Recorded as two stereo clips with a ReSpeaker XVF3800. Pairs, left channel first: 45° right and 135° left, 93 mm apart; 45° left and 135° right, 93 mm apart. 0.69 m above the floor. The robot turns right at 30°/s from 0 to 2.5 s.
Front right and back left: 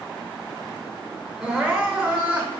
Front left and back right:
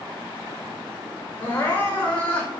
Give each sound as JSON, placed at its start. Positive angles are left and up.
{"t": 1.4, "sound": "crying", "azimuth_deg": 60, "distance_m": 0.9}